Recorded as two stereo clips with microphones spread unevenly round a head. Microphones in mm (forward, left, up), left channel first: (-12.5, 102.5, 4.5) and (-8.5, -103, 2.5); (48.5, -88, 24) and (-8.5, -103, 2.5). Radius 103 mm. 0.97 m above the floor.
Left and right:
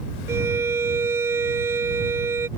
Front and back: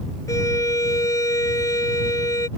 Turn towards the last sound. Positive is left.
turn(degrees=-10)